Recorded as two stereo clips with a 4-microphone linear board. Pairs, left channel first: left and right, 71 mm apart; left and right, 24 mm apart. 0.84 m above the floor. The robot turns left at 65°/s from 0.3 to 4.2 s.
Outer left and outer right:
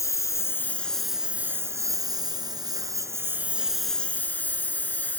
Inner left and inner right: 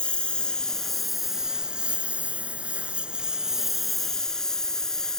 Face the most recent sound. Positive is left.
turn(degrees=155)